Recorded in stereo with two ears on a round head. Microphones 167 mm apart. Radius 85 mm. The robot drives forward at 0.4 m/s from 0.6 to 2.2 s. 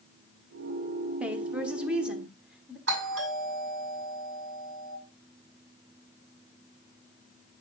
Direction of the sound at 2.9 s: 65° right (ahead or behind).